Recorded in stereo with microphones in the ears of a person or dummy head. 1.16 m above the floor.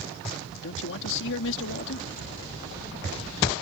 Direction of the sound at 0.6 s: 70° left (ahead or behind).